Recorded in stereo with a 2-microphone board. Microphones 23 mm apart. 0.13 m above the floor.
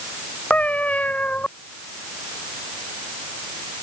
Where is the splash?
No splash in this recording.